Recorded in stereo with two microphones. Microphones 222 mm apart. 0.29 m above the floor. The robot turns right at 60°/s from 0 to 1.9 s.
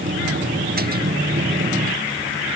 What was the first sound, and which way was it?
Only background noise.